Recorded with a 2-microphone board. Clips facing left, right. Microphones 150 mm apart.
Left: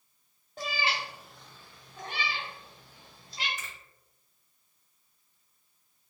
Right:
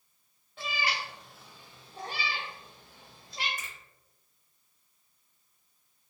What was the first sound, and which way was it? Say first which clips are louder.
A cat meowing: left 2 dB; 40° left (ahead or behind).